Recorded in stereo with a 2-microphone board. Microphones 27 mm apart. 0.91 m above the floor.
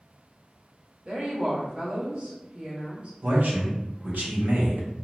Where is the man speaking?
75° right (ahead or behind), 0.9 m.